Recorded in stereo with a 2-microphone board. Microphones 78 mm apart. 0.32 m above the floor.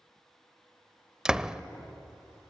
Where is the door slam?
10° right (ahead or behind), 0.6 m.